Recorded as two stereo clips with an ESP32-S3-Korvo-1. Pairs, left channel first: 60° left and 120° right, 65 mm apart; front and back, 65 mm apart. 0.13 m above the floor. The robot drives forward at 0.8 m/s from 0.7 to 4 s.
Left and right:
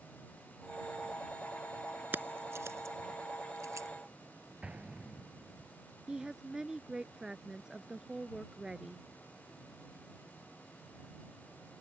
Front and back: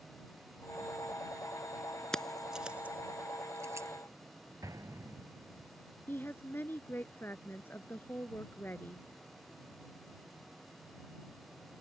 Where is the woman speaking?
45° right.